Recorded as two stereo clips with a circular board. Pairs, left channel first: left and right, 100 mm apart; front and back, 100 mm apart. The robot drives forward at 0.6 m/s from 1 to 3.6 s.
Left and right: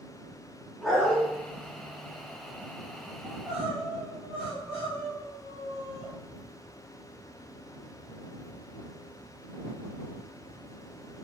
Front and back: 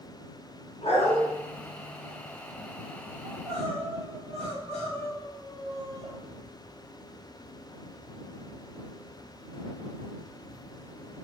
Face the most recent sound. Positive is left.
turn(degrees=-170)